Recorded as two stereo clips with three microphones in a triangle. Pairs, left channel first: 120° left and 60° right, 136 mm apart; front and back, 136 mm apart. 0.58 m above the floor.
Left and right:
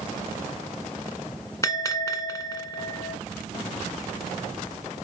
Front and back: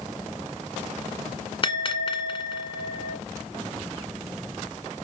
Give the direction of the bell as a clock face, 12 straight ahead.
10 o'clock.